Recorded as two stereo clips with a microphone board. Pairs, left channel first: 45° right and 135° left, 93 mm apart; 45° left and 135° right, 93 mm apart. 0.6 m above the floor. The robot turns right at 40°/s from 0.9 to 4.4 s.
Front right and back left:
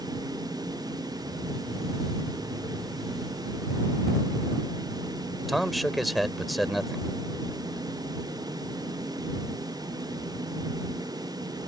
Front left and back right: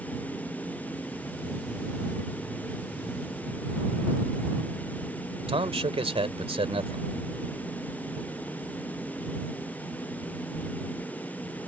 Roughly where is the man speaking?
Behind right.